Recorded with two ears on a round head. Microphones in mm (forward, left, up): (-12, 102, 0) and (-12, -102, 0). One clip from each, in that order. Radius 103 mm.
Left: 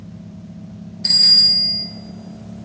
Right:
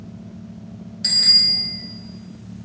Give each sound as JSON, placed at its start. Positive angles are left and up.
{"t": 1.0, "sound": "a bicycle bell", "side_deg": -70, "distance_m": 6.5}